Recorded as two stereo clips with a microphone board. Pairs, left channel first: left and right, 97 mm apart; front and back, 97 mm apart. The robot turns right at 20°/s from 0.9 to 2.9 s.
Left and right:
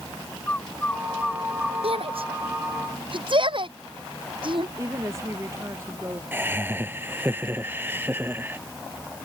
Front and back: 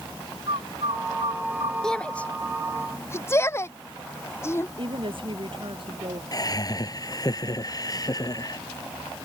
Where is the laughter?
30° right.